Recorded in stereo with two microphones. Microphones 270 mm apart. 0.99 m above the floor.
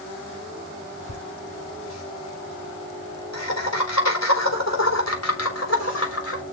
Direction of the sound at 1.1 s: 80° left.